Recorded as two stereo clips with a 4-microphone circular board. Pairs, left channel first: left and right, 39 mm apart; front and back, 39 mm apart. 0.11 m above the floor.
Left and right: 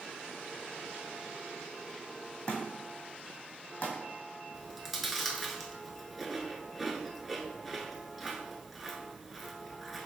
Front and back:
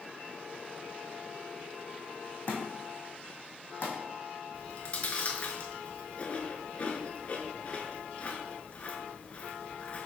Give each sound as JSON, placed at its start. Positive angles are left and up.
{"t": 2.5, "sound": "a thud", "azimuth_deg": 40, "distance_m": 1.4}
{"t": 4.5, "sound": "chewing", "azimuth_deg": 0, "distance_m": 0.6}